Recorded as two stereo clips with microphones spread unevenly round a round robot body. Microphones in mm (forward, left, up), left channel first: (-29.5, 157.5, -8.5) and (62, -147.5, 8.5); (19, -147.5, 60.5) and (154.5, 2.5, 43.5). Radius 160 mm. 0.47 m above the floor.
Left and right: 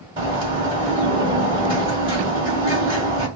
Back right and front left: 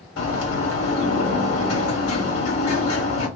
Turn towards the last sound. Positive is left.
turn(degrees=-150)